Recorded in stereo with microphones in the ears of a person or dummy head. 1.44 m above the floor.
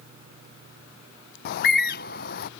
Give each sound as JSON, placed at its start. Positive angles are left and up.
{"t": 1.4, "sound": "a bird", "side_deg": 55}